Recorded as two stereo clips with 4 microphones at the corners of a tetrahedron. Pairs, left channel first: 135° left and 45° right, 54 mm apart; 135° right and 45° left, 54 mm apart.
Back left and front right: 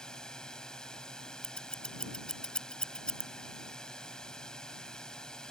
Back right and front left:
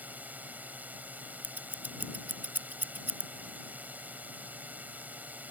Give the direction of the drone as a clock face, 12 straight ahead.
10 o'clock.